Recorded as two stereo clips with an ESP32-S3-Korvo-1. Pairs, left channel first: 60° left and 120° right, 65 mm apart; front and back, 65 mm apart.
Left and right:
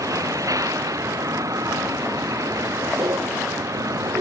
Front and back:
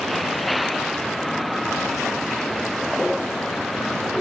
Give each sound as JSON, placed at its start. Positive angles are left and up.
{"t": 0.0, "sound": "a vehicle", "azimuth_deg": -90}